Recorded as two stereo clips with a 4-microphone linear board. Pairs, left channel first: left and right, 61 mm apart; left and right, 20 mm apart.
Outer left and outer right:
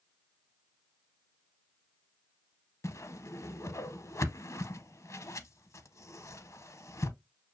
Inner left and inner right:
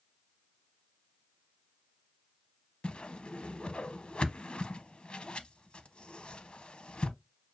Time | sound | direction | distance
2.8 | a whoosh | 55° left (ahead or behind) | 0.5 m